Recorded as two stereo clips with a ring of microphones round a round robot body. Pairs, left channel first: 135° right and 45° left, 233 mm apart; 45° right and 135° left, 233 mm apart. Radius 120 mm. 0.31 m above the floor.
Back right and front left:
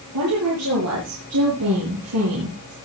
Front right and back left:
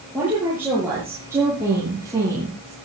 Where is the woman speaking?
55° left, 8.5 m; by 2.8 s 60° left, 8 m.